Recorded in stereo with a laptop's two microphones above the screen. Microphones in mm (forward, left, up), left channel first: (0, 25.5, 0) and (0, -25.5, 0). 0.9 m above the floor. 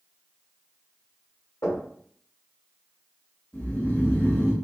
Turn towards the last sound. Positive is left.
turn(degrees=35)  # may be behind; listen again after turning